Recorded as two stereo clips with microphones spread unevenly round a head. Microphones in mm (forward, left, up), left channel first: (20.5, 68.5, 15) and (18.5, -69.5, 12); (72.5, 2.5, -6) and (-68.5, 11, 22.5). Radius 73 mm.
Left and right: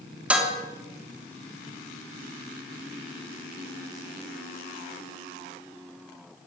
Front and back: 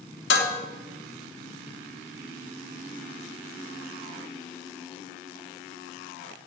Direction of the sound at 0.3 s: 10° right.